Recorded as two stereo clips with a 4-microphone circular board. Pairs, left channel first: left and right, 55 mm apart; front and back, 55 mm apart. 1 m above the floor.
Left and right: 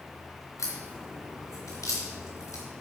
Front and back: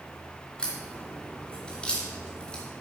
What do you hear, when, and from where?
0.6 s a crack: 75° left, 3 m